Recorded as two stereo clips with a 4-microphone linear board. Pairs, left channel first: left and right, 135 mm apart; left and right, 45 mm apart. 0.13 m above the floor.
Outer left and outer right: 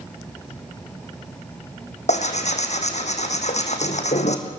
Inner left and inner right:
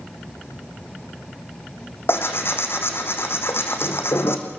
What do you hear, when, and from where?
2.1 s tearing paper: 60° left (ahead or behind), 2.5 m